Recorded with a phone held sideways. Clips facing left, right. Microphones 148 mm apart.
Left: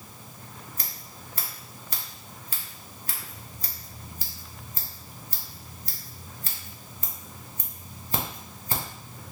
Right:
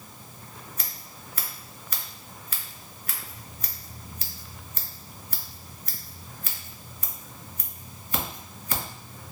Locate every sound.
0.8 s scissors: 35° left (ahead or behind), 1.2 m